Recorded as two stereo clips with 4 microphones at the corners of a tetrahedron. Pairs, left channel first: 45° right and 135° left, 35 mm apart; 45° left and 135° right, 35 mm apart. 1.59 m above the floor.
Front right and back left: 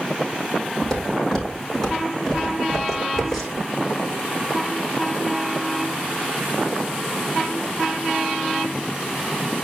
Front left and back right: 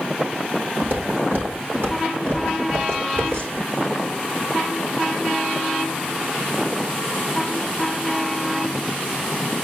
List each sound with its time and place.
0.8 s footsteps: 120° right, 4 m; by 3.7 s 135° right, 5.5 m